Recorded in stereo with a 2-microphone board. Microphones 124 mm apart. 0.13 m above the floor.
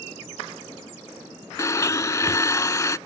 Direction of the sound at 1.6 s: 30° left (ahead or behind).